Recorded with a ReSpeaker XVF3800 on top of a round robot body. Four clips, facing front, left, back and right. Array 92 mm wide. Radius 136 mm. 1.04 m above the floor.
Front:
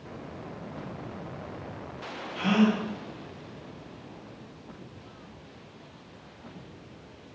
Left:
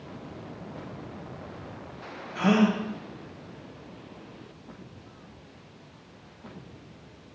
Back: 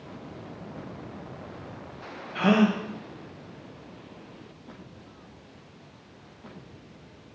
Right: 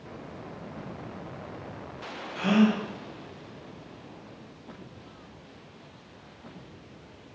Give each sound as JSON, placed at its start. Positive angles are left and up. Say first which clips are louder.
{"t": 2.4, "sound": "a gasp", "louder": "even, back 2 dB", "azimuth_deg": 160, "distance_m": 1.1}